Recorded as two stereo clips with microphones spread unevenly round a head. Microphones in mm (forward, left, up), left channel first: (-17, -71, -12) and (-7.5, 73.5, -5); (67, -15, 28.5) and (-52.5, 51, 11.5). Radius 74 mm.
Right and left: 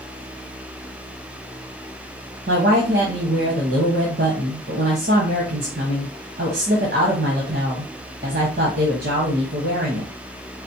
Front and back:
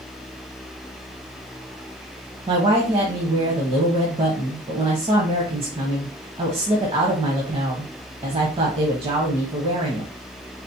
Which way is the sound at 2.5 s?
105° left.